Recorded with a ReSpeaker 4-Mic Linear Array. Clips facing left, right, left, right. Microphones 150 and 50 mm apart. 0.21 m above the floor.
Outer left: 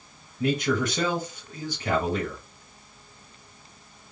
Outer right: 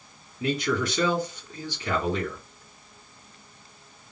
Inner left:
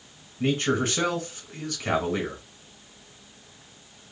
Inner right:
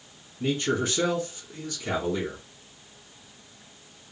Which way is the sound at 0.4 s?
50° left (ahead or behind).